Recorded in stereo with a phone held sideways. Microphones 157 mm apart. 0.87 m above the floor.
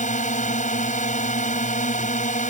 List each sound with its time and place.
0.0 s a drone: 50° left (ahead or behind)